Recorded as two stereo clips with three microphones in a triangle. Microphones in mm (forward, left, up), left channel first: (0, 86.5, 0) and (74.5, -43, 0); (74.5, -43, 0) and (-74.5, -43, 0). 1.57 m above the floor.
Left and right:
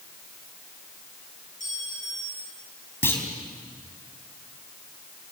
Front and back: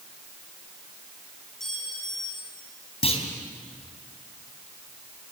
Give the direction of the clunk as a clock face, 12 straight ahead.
10 o'clock.